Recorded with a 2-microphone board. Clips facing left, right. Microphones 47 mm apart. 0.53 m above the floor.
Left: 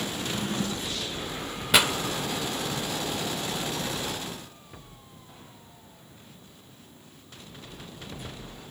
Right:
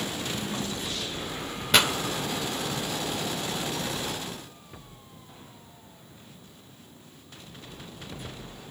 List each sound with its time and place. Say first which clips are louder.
0.1 s a drawer: left 2 dB; 55° left (ahead or behind), 2.0 m
1.7 s a pop: even; 5° left (ahead or behind), 1.2 m